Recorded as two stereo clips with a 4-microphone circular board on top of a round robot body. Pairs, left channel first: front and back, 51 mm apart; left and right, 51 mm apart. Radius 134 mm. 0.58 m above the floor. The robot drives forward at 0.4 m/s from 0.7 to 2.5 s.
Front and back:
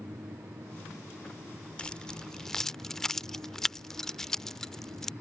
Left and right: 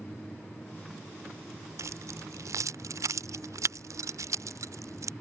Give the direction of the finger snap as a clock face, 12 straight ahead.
I don't hear a finger snap.